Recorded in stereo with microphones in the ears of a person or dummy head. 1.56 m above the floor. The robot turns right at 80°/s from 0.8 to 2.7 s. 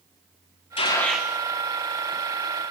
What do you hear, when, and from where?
0.8 s a gunshot: 155° left, 2 m; by 1.3 s 165° right, 2 m